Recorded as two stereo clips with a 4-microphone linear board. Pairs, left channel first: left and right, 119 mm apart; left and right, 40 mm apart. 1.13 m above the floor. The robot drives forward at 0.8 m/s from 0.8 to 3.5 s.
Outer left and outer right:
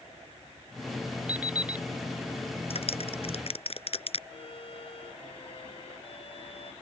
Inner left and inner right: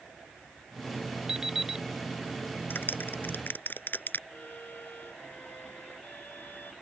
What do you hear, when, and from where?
1.3 s an alarm clock: 15° right (ahead or behind); by 1.9 s 10° right (ahead or behind)
2.7 s a clap: 60° left (ahead or behind); by 4.2 s 55° left (ahead or behind)
4.3 s a violin: 55° left (ahead or behind)